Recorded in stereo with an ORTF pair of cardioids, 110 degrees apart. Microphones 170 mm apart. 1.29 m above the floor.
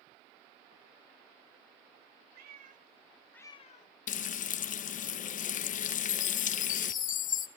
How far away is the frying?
About 0.9 m.